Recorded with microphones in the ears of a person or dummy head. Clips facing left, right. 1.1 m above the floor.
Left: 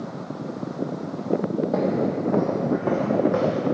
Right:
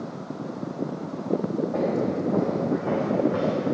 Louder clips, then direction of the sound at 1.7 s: Left 2 dB; 60° left (ahead or behind).